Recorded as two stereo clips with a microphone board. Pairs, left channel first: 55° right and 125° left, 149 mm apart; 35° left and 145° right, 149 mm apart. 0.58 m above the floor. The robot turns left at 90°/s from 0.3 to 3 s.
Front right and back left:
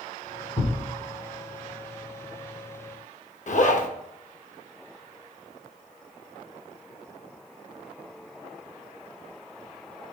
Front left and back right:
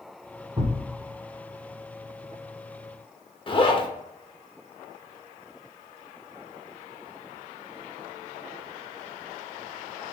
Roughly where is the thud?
Right.